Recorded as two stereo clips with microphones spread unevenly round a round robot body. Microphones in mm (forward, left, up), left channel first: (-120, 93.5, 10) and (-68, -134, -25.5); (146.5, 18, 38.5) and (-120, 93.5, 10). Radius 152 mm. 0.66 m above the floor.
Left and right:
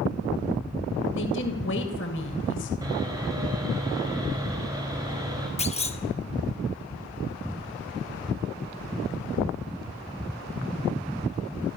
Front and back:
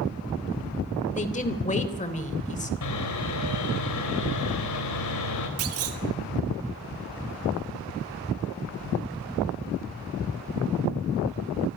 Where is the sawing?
Straight ahead, 4 m.